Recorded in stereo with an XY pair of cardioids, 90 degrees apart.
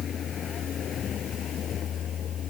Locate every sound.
0.0 s a vehicle: 60° left; by 2.5 s 70° left